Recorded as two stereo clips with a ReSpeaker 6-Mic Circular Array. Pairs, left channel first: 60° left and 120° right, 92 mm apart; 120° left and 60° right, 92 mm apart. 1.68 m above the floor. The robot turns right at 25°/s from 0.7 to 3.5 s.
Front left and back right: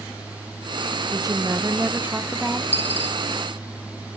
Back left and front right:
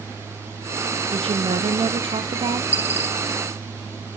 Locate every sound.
1.1 s a woman speaking: 70° right, 1.1 m; by 2.6 s 35° right, 1.1 m
2.7 s a dropped coin: 105° right, 1.0 m; by 3.2 s 95° right, 1.0 m